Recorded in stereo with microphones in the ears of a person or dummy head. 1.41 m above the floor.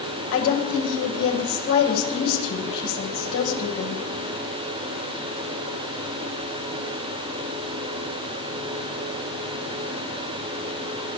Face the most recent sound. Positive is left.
turn(degrees=85)